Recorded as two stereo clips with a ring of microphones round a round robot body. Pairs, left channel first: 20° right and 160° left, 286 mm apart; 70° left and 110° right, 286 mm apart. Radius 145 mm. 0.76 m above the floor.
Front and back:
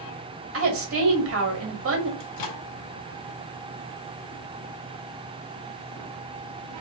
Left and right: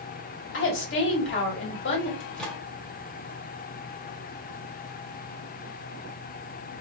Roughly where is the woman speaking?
Behind left.